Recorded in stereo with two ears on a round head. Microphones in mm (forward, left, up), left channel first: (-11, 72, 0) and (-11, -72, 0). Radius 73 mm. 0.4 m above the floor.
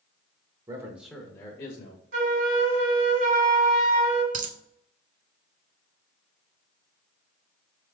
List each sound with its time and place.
0.7 s a man speaking: 25° right (ahead or behind), 0.9 m; by 2.0 s 45° left (ahead or behind), 1.1 m
2.1 s a flute: 75° right (ahead or behind), 1.7 m
4.3 s a dropped coin: 50° right (ahead or behind), 0.6 m